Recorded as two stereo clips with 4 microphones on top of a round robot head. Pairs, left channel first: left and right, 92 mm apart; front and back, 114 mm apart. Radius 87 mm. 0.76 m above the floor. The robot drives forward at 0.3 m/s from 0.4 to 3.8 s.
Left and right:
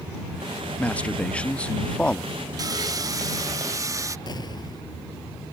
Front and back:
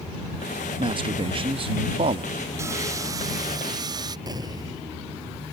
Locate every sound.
0.8 s a man speaking: 160° left; by 2.3 s 165° left
2.6 s sawing: 120° right; by 4.2 s 135° right
4.3 s an explosion: 125° left